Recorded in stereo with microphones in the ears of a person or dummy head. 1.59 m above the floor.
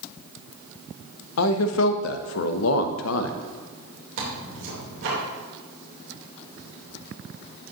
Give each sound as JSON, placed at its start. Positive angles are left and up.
{"t": 1.4, "sound": "a man speaking", "side_deg": 65, "distance_m": 0.7}
{"t": 4.2, "sound": "tearing paper", "side_deg": -70, "distance_m": 3.0}